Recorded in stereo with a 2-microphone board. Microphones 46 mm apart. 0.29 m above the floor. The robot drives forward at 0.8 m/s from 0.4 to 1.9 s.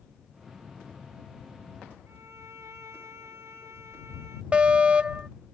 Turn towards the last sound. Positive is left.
turn(degrees=-25)  # may be behind; listen again after turning